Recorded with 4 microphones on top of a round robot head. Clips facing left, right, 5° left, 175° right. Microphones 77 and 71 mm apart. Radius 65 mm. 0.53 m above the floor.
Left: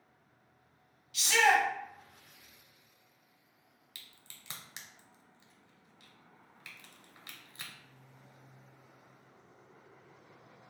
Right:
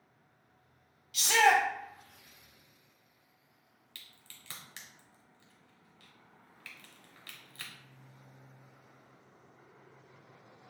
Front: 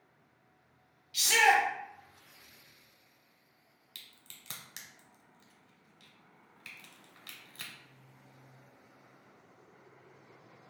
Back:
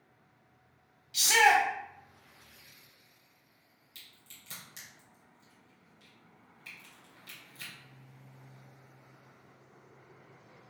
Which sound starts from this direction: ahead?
A crack, at 4.0 s.